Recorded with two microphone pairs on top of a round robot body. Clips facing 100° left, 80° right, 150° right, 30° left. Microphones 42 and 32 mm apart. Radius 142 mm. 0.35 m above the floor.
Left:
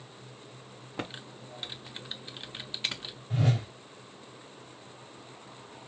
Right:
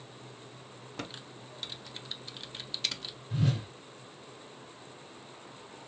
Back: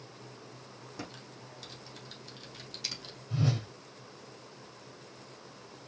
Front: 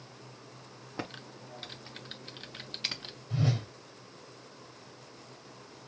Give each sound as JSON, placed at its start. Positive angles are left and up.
{"t": 1.0, "sound": "typing on a keyboard", "azimuth_deg": 60, "distance_m": 0.9}
{"t": 3.3, "sound": "a whoosh", "azimuth_deg": 115, "distance_m": 2.0}